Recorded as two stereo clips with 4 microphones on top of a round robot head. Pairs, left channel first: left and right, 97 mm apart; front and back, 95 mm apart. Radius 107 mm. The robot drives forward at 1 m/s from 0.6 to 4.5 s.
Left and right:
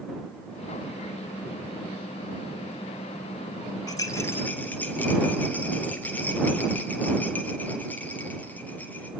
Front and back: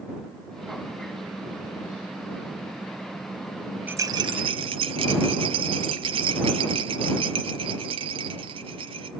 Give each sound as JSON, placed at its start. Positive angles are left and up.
{"t": 3.9, "sound": "a rattle", "azimuth_deg": 130, "distance_m": 0.5}